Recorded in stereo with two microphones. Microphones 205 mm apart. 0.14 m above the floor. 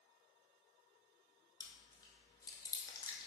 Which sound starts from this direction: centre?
Chewing, at 1.6 s.